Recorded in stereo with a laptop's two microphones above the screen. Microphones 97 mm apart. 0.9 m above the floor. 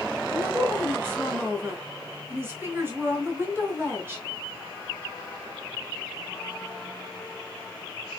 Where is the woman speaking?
25° right (ahead or behind), 4 m.